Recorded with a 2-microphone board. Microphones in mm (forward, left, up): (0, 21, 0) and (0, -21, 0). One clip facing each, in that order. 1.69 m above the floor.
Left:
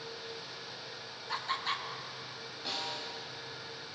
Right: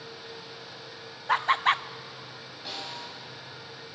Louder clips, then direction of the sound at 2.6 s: Even; 5° right (ahead or behind).